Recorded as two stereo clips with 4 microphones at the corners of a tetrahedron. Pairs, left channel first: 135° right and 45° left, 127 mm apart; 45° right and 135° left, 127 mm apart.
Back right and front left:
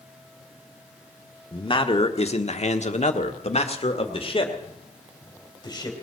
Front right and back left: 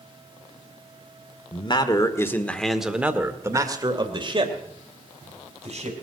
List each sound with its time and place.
1.5 s a man speaking: 85° right, 1.7 m; by 6.0 s 165° left, 3.5 m